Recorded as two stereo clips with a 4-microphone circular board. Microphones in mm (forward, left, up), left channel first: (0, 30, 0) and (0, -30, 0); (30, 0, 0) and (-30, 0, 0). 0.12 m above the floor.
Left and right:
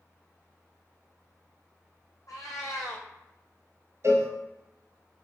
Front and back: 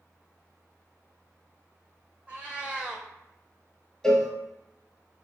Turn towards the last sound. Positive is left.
turn(degrees=-75)